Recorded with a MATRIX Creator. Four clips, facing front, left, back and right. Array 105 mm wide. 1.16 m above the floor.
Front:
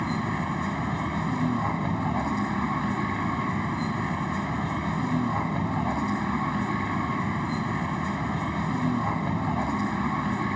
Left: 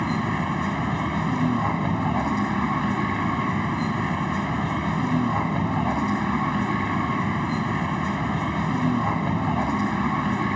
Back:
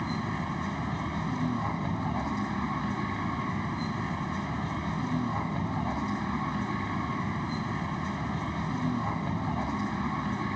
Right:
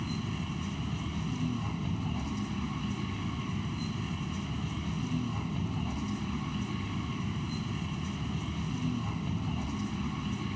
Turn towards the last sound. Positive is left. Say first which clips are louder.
# left 12 dB, front 4 dB
turn(degrees=75)